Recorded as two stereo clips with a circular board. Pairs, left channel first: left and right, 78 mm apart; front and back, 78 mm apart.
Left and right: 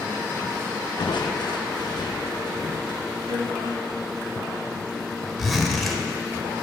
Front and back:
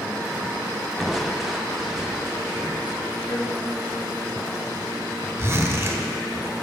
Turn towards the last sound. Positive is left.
turn(degrees=180)